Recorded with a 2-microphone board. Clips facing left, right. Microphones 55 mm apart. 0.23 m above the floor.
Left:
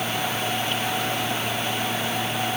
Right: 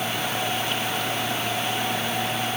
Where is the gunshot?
I don't hear a gunshot.